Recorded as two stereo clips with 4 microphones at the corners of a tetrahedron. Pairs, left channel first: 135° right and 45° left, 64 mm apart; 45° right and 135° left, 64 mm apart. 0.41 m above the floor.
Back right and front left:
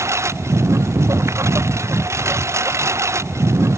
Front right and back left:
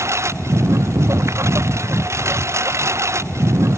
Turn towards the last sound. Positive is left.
turn(degrees=90)